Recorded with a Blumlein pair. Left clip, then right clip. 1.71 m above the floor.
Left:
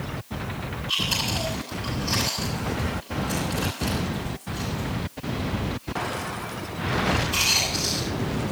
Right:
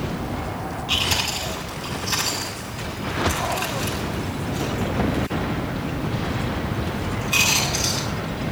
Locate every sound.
0.9 s chewing: 25° right, 9.5 m